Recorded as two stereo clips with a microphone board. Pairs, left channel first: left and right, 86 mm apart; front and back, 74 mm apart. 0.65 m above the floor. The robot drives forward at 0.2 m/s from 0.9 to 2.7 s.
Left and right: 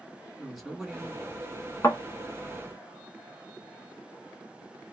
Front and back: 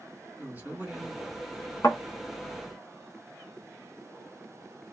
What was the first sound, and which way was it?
A man speaking, 175° right.